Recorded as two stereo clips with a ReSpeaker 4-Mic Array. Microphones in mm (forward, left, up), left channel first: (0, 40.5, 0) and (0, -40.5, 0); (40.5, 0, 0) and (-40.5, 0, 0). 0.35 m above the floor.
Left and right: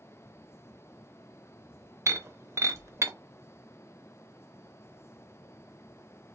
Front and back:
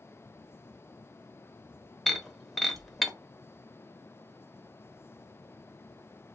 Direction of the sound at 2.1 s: 85° right.